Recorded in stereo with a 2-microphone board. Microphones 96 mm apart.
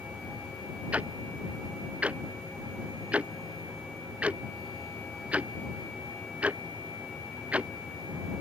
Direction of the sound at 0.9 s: 15° right (ahead or behind).